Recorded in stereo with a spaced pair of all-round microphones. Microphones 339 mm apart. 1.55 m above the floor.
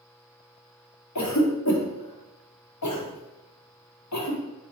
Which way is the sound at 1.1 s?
55° left (ahead or behind).